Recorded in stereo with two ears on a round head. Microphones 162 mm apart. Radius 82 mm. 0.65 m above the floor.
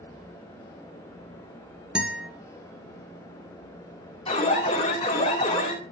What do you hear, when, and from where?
1.9 s a guitar: 5° right (ahead or behind), 1.9 m
4.3 s an alarm: 25° left (ahead or behind), 3.5 m